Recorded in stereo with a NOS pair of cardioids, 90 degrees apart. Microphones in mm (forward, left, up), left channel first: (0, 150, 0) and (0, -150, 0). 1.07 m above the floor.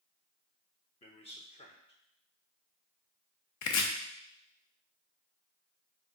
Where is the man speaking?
20° left, 0.6 m.